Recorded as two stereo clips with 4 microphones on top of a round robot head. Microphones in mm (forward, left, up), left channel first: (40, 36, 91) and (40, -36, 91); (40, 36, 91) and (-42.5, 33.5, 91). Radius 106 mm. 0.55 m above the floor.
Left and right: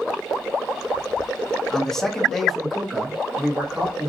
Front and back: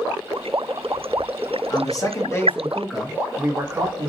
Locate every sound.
1.7 s a man speaking: 10° left, 1.4 m; by 4.1 s 165° right, 1.3 m